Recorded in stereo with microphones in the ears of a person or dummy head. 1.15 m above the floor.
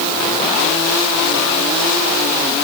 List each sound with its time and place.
Only background noise.